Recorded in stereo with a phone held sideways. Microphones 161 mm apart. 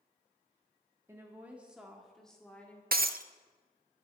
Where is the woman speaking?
20° right (ahead or behind), 1.4 m; by 2.8 s 10° left (ahead or behind), 2.0 m.